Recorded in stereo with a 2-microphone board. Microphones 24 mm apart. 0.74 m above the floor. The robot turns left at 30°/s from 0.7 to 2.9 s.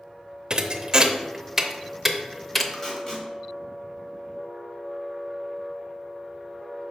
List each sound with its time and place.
0.5 s a thud: 35° right (ahead or behind), 0.6 m; by 2.6 s 10° left (ahead or behind), 0.6 m
2.7 s tape being pulled: 15° left (ahead or behind), 1.7 m; by 3.3 s 20° left (ahead or behind), 1.7 m